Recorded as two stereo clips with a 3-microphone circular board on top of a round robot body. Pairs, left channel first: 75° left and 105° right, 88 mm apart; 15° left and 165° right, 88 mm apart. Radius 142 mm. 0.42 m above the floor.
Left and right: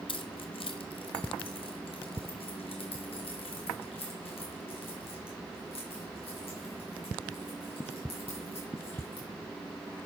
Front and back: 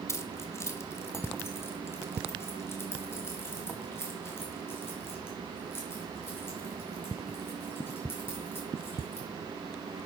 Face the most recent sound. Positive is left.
turn(degrees=80)